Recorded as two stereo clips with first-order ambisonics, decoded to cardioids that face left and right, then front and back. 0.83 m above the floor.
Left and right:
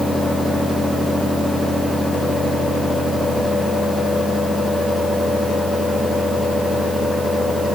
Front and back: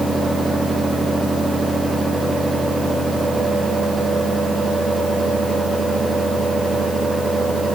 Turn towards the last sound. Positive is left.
No sound to turn to.